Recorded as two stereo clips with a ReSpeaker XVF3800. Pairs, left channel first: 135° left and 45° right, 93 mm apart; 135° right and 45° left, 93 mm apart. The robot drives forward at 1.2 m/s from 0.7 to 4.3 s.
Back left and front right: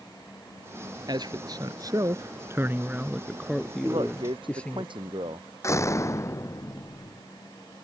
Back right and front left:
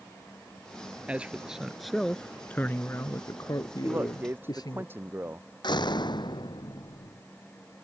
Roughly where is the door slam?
Behind.